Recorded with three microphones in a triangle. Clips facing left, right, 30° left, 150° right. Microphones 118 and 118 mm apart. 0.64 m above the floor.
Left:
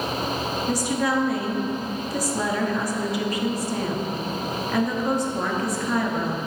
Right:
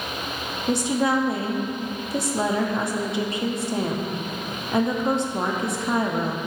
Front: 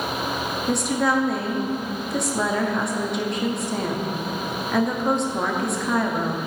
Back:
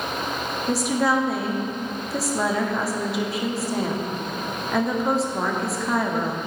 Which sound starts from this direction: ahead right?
A woman speaking, at 0.7 s.